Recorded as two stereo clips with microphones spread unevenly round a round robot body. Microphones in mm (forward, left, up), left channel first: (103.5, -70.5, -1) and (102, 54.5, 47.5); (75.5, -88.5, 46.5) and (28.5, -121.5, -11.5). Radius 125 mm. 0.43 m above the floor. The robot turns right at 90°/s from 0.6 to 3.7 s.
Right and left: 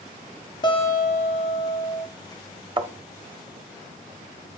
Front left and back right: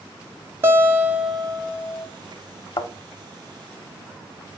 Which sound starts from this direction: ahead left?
A thud, at 2.8 s.